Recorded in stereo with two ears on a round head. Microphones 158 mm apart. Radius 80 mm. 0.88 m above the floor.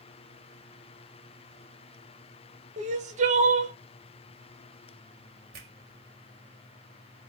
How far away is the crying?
About 0.9 m.